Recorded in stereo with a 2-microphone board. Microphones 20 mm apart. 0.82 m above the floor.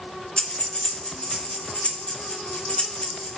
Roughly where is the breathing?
Left.